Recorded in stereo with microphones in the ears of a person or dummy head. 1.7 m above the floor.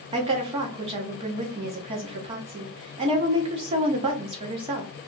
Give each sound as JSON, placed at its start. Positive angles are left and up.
{"t": 0.1, "sound": "a woman speaking", "side_deg": -25, "distance_m": 1.0}